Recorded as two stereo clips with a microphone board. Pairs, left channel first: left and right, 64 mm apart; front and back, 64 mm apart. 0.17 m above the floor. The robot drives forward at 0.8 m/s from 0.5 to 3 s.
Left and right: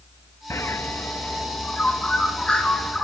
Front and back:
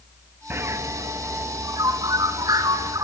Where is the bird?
130° left, 0.7 m; by 3.0 s 170° left, 2.5 m.